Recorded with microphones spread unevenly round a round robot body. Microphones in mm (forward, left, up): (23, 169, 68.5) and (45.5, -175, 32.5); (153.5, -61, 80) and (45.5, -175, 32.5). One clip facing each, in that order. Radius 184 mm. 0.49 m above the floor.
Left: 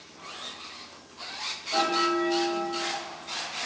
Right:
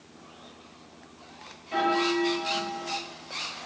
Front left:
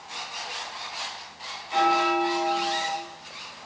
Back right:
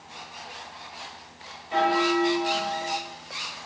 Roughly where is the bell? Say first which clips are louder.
Right 2 dB, even; behind right.